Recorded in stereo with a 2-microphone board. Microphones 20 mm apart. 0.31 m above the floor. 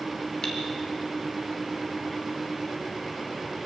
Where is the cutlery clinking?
40° left (ahead or behind), 3.5 m.